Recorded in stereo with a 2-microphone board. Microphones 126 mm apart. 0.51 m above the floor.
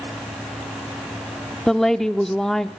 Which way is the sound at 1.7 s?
5° left (ahead or behind).